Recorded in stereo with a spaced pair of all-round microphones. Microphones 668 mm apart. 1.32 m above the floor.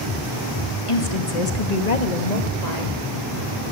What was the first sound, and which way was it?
A woman speaking, 50° left (ahead or behind).